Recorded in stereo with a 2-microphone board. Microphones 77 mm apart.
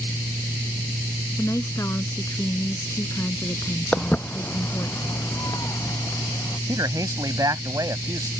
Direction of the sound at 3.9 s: 15° left (ahead or behind).